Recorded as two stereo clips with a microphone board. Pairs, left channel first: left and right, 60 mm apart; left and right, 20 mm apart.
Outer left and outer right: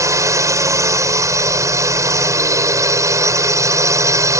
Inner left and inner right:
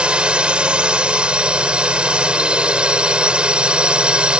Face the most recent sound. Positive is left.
turn(degrees=-60)  # may be behind; listen again after turning